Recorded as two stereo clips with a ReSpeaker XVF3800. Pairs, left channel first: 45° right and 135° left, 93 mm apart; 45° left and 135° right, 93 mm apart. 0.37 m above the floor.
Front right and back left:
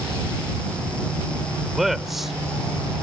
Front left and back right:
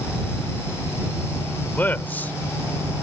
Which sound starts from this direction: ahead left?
A man speaking, at 1.6 s.